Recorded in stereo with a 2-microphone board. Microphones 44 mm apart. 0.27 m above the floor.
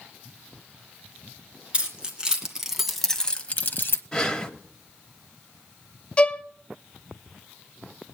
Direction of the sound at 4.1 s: 20° left (ahead or behind).